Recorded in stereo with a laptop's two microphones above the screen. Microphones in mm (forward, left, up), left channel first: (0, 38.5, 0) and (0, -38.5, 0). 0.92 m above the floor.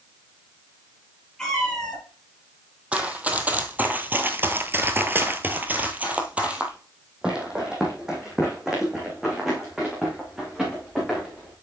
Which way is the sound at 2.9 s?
15° right (ahead or behind).